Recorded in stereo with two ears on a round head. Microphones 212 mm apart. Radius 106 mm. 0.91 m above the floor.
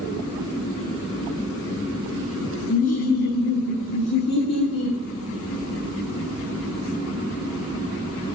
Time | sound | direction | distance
2.7 | laughter | 30° left (ahead or behind) | 0.9 m